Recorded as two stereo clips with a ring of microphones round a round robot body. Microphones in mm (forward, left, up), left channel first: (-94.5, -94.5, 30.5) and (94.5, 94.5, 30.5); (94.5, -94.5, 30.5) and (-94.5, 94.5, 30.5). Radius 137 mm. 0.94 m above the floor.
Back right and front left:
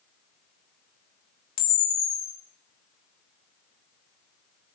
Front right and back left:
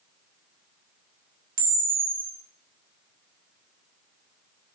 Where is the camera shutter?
165° right, 2.5 m.